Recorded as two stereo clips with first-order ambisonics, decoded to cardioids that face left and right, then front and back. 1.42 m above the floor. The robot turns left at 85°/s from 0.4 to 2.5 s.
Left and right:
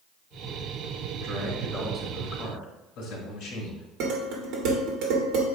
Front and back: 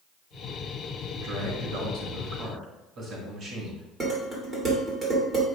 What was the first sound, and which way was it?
A man speaking, 115° right.